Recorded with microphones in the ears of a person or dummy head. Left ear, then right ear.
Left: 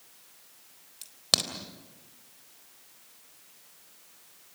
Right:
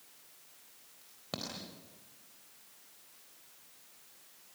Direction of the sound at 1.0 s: 65° left (ahead or behind).